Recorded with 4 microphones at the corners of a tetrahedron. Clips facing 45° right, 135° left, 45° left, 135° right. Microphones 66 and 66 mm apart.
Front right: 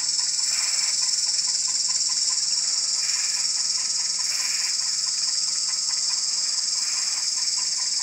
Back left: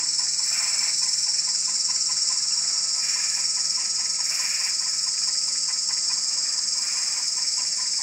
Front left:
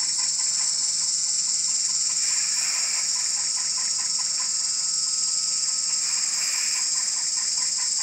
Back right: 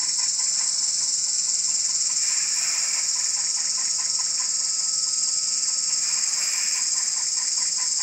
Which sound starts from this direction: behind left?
An insect, at 0.0 s.